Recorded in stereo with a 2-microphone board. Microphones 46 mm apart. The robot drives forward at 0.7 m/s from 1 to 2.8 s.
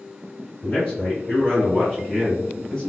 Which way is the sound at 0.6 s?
15° left (ahead or behind).